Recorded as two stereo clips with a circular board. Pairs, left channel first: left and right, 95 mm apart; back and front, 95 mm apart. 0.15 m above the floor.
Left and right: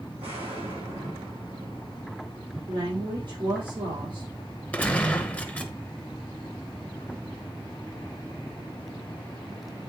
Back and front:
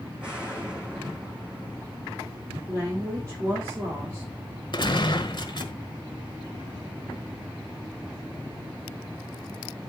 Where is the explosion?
80° right, 6 m.